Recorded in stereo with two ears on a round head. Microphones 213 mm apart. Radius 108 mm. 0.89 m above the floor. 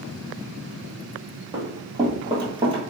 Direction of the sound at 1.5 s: 15° right (ahead or behind).